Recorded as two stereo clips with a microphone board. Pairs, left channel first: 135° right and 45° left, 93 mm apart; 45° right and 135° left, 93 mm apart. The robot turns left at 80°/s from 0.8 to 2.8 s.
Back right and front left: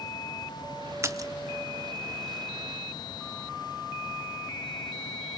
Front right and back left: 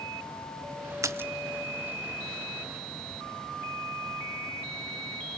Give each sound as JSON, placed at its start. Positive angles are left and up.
{"t": 1.0, "sound": "a splash", "azimuth_deg": 95, "distance_m": 0.8}